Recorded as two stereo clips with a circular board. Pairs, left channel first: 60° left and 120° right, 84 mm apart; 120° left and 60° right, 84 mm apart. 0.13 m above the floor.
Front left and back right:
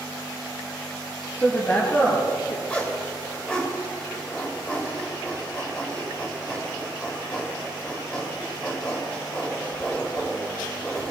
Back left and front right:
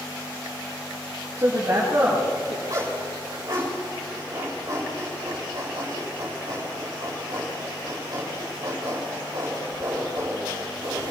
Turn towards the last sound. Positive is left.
turn(degrees=-15)